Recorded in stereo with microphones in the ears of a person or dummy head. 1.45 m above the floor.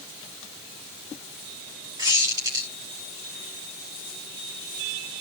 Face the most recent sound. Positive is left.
turn(degrees=-15)  # may be behind; listen again after turning